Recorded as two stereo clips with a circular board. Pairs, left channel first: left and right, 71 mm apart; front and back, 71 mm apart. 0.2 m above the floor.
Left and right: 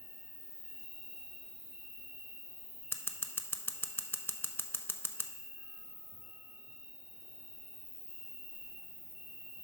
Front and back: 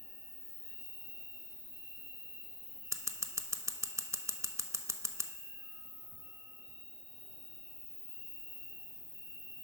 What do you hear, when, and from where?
0.0 s an insect: 155° right, 3 m
2.9 s scissors: 145° left, 0.5 m